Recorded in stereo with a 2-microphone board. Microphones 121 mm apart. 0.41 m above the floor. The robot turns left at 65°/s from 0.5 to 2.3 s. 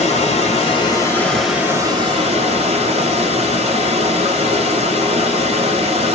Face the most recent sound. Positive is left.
turn(degrees=-55)